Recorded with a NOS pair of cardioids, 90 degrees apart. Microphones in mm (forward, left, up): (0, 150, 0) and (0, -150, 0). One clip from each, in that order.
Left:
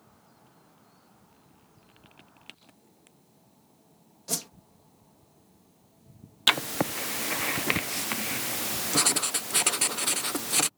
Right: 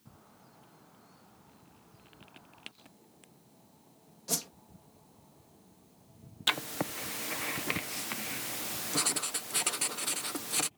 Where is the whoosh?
10° left.